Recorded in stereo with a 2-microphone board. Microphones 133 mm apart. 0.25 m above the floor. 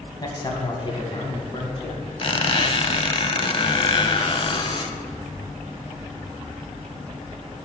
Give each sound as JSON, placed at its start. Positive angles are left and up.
{"t": 0.2, "sound": "a man speaking", "side_deg": 30, "distance_m": 1.2}
{"t": 2.2, "sound": "a squeak", "side_deg": 45, "distance_m": 0.6}